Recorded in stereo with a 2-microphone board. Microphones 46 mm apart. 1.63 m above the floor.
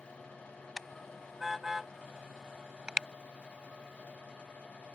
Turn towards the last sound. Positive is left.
turn(degrees=-15)  # may be behind; listen again after turning